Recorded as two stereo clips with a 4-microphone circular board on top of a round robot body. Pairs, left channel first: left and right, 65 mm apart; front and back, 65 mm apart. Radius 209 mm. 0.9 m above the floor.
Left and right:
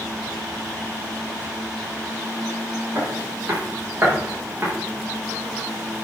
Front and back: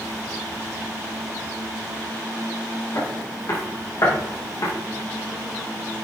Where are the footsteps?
35° right, 7 m; by 4.7 s 30° right, 7.5 m.